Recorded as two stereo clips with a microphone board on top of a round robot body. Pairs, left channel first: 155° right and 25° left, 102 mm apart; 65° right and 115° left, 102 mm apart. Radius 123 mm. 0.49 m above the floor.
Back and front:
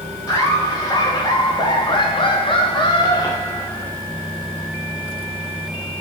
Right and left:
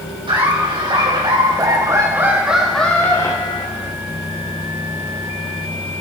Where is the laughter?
145° left, 3.5 m; by 3.9 s 90° right, 1.8 m.